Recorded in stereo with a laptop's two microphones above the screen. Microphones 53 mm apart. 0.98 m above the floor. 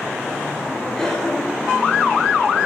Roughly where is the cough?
Centre.